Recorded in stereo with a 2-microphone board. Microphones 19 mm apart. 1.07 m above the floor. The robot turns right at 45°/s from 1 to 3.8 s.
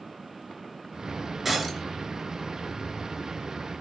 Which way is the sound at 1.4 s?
15° right (ahead or behind).